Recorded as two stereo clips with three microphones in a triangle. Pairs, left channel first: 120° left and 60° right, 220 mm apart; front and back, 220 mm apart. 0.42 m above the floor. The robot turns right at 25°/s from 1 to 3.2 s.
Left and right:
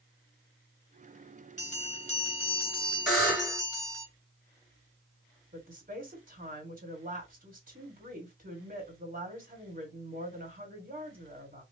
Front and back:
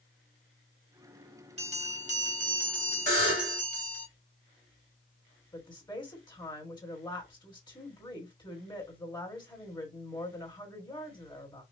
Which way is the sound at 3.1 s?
165° left.